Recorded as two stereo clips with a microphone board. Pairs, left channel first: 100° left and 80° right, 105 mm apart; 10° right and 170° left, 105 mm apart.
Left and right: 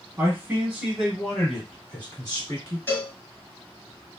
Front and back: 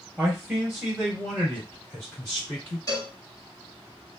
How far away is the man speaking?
About 1.8 m.